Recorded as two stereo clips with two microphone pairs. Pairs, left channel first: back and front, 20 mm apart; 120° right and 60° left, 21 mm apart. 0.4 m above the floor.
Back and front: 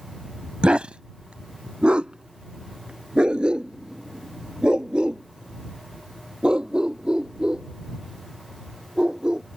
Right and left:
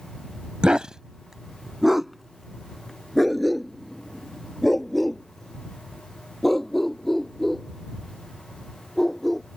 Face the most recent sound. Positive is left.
turn(degrees=-40)